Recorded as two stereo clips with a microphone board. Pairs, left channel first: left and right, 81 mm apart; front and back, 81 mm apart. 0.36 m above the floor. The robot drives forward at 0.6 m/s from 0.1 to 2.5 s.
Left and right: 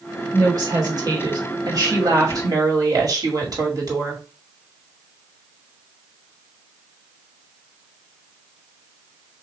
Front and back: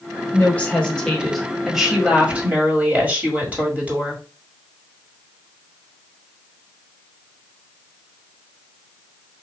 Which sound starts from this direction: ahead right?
A woman speaking, at 0.3 s.